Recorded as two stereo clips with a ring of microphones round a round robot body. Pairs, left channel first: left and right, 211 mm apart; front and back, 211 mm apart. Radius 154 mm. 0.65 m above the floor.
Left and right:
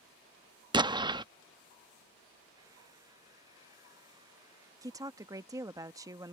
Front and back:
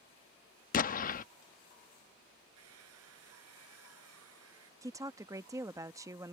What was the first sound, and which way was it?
An explosion, 25° right.